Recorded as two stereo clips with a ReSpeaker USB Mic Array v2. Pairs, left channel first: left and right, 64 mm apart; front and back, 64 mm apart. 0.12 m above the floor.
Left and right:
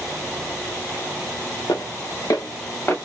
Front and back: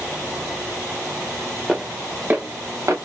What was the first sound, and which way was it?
Footsteps, 95° left.